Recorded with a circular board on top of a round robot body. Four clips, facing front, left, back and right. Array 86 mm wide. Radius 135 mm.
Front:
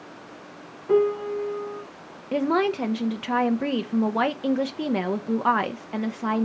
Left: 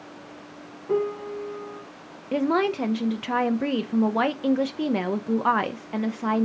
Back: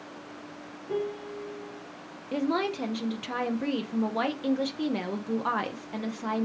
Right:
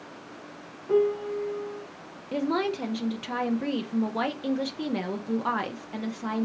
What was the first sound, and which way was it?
A piano, 15° left.